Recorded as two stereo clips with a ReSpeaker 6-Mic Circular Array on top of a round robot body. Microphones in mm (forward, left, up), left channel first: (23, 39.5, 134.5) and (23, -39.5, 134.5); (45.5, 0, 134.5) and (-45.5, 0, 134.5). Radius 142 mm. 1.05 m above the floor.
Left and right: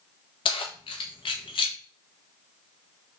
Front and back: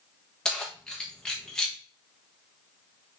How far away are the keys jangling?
About 0.6 m.